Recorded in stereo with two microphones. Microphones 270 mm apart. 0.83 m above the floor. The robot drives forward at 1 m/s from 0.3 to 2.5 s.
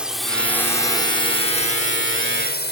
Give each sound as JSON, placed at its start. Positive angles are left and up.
{"t": 0.0, "sound": "a drone", "side_deg": -5}